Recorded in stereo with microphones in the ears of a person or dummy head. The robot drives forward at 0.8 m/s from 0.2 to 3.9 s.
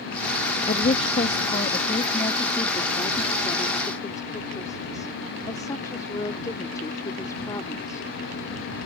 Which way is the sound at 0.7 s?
40° left (ahead or behind).